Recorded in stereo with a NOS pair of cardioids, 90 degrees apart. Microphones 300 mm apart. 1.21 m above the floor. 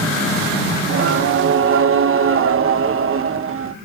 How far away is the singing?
About 1.3 m.